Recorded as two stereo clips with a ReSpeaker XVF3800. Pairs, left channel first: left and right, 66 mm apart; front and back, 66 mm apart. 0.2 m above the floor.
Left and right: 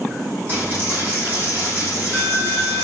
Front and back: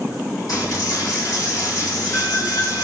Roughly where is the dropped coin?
Ahead right.